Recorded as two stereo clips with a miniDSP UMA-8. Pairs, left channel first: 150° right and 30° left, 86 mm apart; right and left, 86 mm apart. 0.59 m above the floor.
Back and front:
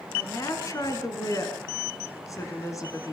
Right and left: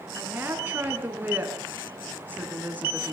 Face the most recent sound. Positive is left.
turn(degrees=160)